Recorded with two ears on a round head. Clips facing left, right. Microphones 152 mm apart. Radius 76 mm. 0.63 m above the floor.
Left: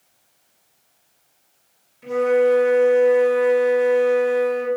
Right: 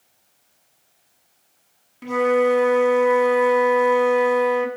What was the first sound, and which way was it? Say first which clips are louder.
A flute: left 1 dB; 70° right (ahead or behind).